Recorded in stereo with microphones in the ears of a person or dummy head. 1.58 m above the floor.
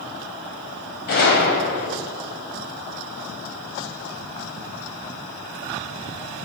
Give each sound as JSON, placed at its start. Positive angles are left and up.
{"t": 1.1, "sound": "a gunshot", "side_deg": 40, "distance_m": 1.7}